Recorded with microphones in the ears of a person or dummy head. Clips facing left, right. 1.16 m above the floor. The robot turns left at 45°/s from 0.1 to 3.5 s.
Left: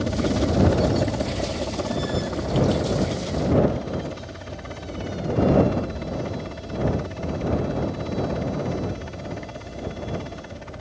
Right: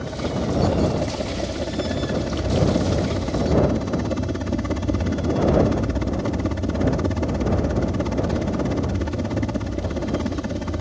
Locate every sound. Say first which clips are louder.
0.0 s a helicopter: left 3 dB; 55° left; by 10.8 s 100° right